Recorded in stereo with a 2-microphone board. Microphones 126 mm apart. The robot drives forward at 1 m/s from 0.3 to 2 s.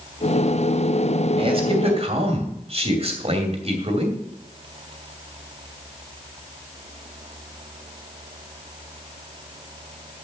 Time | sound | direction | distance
1.4 | a man speaking | 45° right (ahead or behind) | 2.5 m